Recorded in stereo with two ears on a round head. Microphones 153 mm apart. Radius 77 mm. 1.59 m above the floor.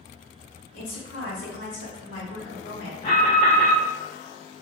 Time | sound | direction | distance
0.7 | a woman speaking | 80° left | 1.2 m
3.0 | an alarm | 35° left (ahead or behind) | 1.5 m